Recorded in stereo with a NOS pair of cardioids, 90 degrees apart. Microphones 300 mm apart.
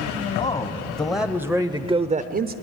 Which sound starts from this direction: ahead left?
A man speaking, at 0.3 s.